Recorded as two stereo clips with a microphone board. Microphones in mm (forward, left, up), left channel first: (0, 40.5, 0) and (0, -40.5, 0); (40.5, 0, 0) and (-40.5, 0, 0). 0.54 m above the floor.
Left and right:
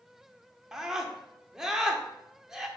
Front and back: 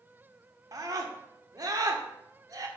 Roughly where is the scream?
Behind.